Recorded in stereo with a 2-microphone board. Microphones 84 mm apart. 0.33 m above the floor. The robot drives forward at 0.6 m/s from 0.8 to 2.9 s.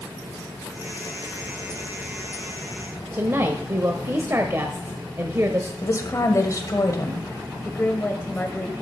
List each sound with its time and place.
3.1 s a woman speaking: 35° right (ahead or behind), 1.0 m
5.8 s a woman speaking: 40° left (ahead or behind), 1.7 m
7.7 s a woman speaking: 25° left (ahead or behind), 1.1 m